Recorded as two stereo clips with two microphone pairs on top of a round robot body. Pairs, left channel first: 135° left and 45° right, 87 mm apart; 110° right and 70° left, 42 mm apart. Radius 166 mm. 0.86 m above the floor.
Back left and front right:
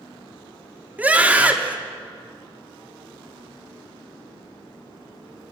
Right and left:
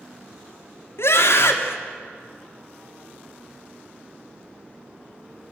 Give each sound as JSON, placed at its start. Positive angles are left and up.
{"t": 1.0, "sound": "a scream", "azimuth_deg": -120, "distance_m": 3.0}